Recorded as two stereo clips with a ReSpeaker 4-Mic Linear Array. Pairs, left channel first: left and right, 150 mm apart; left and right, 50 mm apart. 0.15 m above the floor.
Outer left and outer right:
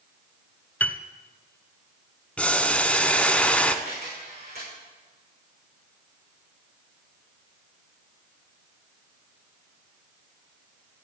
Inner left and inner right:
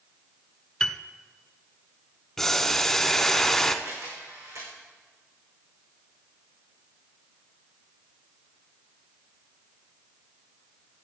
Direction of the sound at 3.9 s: 80° right.